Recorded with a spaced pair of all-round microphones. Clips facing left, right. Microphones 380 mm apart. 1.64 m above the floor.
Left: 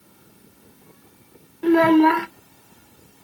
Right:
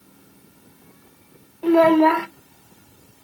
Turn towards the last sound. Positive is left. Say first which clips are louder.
# even
turn(degrees=30)  # may be behind; listen again after turning